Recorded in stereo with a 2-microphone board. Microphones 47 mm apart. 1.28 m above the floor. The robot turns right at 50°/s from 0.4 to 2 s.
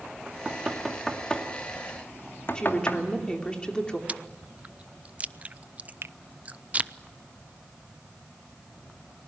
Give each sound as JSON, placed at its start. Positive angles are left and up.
{"t": 0.3, "sound": "knocking", "side_deg": -30, "distance_m": 2.5}
{"t": 2.5, "sound": "a woman speaking", "side_deg": 20, "distance_m": 3.0}
{"t": 4.1, "sound": "chewing", "side_deg": -30, "distance_m": 0.6}
{"t": 6.0, "sound": "a finger snap", "side_deg": -60, "distance_m": 0.6}